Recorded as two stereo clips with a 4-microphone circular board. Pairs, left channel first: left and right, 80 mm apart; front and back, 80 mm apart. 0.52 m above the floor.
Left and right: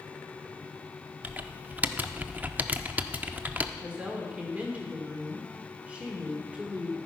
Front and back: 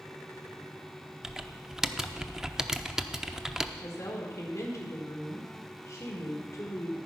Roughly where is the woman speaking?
Ahead right.